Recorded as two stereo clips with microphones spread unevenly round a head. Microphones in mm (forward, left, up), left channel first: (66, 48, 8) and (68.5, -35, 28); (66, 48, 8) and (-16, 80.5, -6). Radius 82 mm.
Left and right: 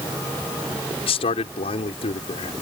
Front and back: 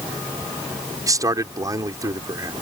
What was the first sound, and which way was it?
A man speaking, 110° left.